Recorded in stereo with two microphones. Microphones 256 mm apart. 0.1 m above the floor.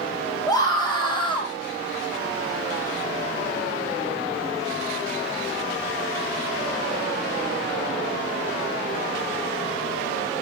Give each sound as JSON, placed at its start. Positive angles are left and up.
{"t": 0.5, "sound": "a scream", "side_deg": 15, "distance_m": 7.0}